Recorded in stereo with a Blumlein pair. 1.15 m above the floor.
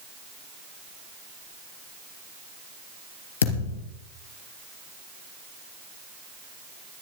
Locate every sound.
3.4 s a thud: 65° left, 3.5 m